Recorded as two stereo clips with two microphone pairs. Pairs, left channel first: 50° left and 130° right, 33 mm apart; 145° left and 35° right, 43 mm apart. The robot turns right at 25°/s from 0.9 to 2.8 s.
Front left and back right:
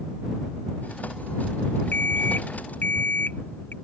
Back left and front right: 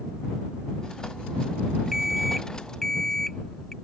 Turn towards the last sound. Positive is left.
turn(degrees=65)